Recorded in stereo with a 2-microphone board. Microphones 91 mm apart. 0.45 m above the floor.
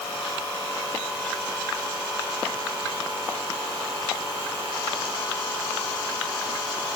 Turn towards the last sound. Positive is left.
No sound to turn to.